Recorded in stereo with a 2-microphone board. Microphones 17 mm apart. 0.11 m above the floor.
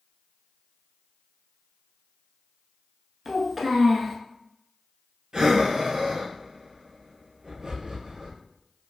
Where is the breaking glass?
No breaking glass in this recording.